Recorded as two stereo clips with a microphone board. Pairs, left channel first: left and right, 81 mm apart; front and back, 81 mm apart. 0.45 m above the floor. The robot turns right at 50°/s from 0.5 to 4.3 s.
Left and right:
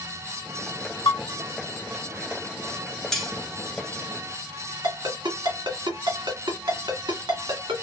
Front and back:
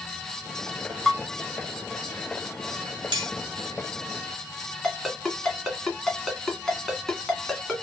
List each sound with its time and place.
1.1 s dishes clattering: 90° left, 3 m; by 1.2 s 95° left, 3 m
3.1 s cutlery clinking: 175° left, 1.3 m; by 3.3 s 175° right, 1.3 m
4.8 s a ringtone: 85° right, 1.8 m